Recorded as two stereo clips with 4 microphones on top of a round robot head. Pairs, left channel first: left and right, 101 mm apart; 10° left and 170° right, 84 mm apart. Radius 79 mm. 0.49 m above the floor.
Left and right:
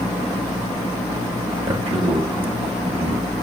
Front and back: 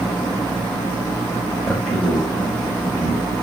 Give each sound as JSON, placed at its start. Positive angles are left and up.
{"t": 1.6, "sound": "a man speaking", "azimuth_deg": -70, "distance_m": 3.0}